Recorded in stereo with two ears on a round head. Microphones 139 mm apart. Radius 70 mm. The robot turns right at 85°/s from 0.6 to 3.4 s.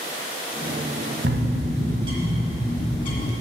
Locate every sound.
1.2 s a bird: 105° right, 1.3 m; by 3.3 s 70° left, 1.3 m